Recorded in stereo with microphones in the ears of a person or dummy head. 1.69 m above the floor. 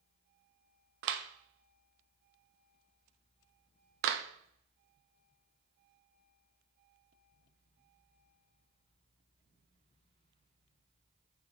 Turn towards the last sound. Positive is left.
turn(degrees=-65)  # may be behind; listen again after turning